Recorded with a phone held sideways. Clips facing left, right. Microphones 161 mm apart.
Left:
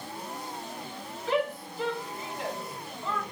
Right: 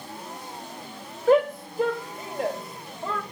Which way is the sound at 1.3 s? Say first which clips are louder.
Right 9 dB; 50° right (ahead or behind).